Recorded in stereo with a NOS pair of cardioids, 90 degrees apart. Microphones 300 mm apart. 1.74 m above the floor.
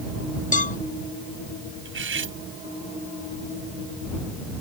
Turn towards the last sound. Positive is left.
turn(degrees=-40)